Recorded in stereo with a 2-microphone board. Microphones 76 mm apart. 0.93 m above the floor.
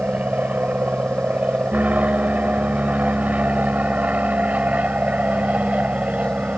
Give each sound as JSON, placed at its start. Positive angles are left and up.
{"t": 0.0, "sound": "an aircraft", "side_deg": -20}